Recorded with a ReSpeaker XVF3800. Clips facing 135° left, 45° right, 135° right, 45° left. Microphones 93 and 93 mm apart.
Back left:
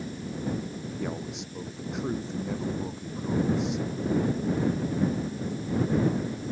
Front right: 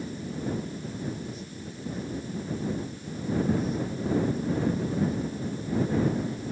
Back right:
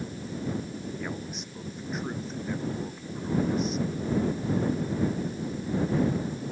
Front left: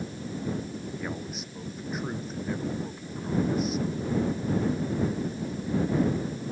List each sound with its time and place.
1.0 s a man speaking: 130° left